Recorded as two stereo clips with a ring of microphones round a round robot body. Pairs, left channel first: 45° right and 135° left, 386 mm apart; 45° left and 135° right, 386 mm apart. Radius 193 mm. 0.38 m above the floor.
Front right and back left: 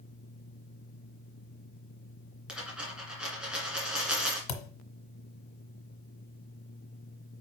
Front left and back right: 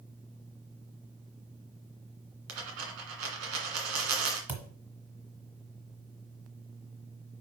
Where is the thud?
50° right, 1.3 m.